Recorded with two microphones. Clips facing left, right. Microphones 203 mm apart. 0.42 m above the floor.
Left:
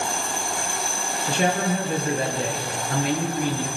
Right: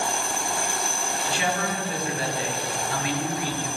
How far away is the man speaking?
About 8 m.